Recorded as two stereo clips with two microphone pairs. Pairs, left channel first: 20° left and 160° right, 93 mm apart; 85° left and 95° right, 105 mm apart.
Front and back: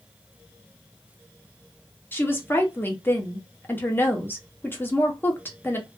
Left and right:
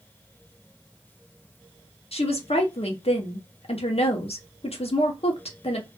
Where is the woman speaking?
85° left, 0.8 m.